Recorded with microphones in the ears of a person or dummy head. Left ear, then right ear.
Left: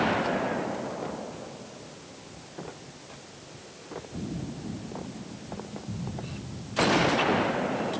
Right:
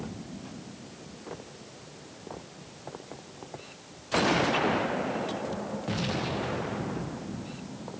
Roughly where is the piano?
No piano in this recording.